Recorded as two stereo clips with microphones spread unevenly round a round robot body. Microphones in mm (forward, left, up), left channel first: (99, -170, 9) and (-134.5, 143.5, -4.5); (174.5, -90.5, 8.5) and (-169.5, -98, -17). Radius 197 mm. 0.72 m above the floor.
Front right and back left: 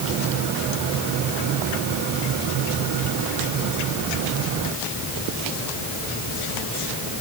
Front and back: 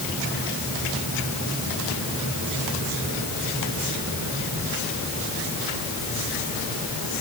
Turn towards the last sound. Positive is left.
No sound to turn to.